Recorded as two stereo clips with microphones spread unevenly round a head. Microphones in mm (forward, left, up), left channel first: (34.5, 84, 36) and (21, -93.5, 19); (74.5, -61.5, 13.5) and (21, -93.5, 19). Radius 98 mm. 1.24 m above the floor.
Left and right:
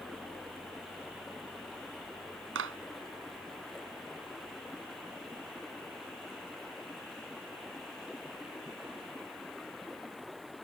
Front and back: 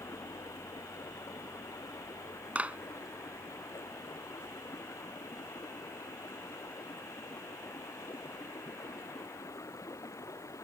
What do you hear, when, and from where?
0.0 s running water: 5° right
2.5 s a clap: 85° right